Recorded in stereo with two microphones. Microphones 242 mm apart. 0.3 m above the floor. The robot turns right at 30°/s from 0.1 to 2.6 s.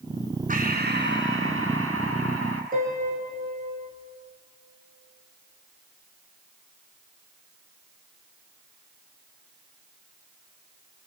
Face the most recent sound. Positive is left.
turn(degrees=-35)  # may be behind; listen again after turning